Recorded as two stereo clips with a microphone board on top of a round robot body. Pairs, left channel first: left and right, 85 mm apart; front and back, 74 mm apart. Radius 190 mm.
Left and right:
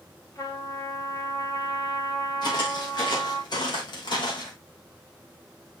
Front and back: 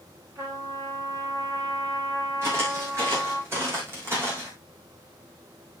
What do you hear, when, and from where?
0.3 s a trumpet: 140° left, 5 m
2.4 s footsteps: 125° left, 5 m; by 4.5 s 120° left, 3.5 m